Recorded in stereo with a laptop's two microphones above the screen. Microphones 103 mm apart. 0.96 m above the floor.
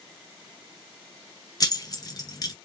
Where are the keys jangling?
40° left (ahead or behind), 0.7 m.